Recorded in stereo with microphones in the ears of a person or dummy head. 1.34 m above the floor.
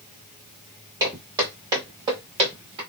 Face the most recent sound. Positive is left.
turn(degrees=-20)  # may be behind; listen again after turning